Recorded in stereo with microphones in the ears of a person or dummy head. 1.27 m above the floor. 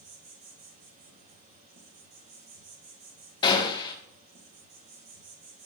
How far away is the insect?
About 4 m.